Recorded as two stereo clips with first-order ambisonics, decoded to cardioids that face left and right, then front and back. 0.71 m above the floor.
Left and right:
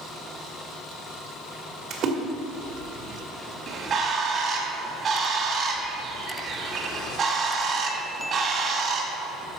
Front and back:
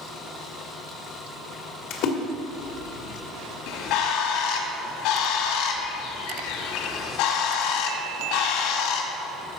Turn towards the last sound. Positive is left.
turn(degrees=-25)